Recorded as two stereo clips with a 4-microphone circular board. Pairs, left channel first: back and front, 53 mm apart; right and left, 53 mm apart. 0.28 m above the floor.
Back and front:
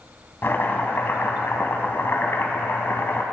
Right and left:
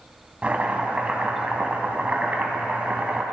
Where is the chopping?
145° left, 1.3 m.